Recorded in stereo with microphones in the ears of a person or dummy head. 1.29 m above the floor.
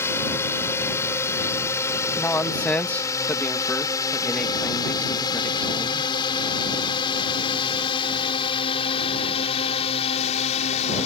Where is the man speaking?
10° left (ahead or behind).